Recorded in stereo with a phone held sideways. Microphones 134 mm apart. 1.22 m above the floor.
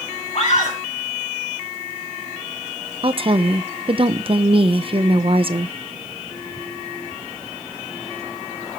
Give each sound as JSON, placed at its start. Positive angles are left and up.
{"t": 0.3, "sound": "a scream", "side_deg": 45, "distance_m": 3.5}
{"t": 3.0, "sound": "a woman speaking", "side_deg": -40, "distance_m": 0.8}